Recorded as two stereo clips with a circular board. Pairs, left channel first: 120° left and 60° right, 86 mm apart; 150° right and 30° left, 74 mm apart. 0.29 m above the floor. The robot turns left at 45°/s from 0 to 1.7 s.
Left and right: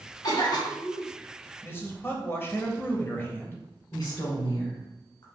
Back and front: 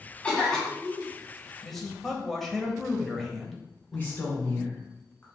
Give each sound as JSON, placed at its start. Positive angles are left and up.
{"t": 0.2, "sound": "a cough", "azimuth_deg": 145, "distance_m": 1.9}
{"t": 1.6, "sound": "a man speaking", "azimuth_deg": 135, "distance_m": 0.9}
{"t": 3.9, "sound": "a woman speaking", "azimuth_deg": 150, "distance_m": 2.0}